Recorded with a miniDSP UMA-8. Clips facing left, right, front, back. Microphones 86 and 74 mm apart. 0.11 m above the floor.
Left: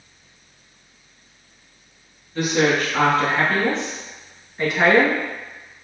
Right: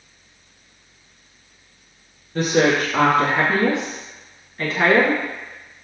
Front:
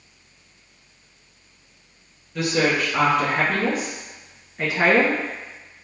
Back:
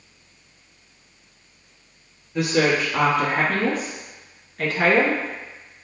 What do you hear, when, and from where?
2.4 s a woman speaking: 110° right, 1.4 m; by 5.8 s 55° left, 1.5 m